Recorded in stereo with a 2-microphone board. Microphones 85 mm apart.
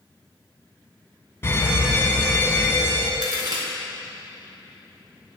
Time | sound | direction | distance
1.4 | a fire alarm | 30° left (ahead or behind) | 2.5 m
3.2 | a crack | 65° right (ahead or behind) | 4 m